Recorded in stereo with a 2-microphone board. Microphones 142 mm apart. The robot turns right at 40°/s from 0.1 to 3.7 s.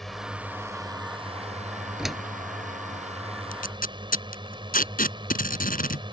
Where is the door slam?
5° right (ahead or behind); by 2.3 s 5° left (ahead or behind).